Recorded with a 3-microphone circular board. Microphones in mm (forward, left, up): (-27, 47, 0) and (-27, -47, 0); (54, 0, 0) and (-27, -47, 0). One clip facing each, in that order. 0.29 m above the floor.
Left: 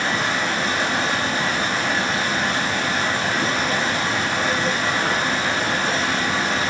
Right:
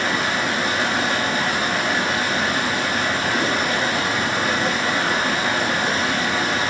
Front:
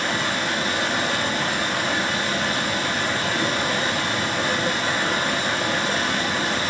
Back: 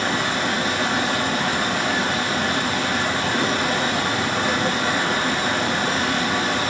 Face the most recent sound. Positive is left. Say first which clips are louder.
# even, back 2 dB
turn(degrees=-175)